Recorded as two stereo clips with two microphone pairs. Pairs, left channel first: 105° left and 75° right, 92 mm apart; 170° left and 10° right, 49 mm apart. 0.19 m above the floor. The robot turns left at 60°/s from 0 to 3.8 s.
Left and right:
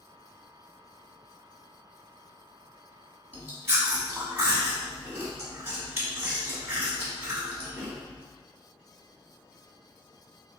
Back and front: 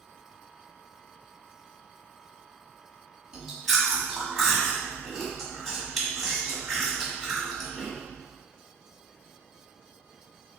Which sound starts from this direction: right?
Chewing, at 3.3 s.